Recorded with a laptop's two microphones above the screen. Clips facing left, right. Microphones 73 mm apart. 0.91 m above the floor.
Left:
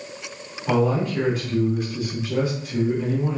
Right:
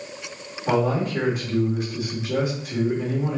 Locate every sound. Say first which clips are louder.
0.7 s a man speaking: left 1 dB; 25° right (ahead or behind), 2 m